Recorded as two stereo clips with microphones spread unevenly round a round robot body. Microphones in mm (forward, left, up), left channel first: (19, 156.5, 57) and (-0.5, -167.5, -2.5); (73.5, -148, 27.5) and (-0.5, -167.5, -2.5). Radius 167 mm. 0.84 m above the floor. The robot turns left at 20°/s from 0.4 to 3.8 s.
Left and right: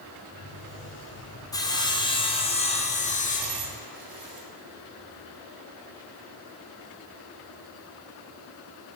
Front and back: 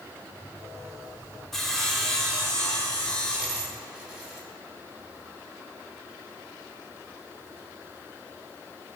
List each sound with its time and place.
1.5 s sawing: 175° left, 1.0 m; by 3.6 s 135° left, 1.0 m
3.4 s a dropped coin: 70° right, 3 m; by 4.5 s 80° right, 3 m